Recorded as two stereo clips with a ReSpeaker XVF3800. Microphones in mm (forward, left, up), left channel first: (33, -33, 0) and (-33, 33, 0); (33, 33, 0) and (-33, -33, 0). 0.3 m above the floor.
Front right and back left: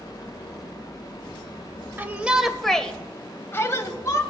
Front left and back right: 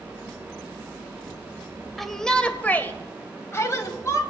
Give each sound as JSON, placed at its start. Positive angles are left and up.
{"t": 2.0, "sound": "a shout", "azimuth_deg": 130, "distance_m": 0.9}